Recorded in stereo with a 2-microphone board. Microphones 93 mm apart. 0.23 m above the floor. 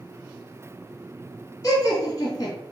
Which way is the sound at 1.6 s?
40° left (ahead or behind).